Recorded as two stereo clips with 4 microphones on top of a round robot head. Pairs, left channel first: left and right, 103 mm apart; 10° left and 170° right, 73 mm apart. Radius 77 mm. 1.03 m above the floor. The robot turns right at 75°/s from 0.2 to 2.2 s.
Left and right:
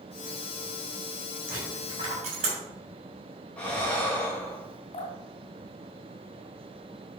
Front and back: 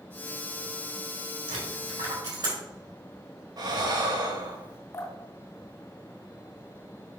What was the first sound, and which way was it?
A dropped coin, 175° right.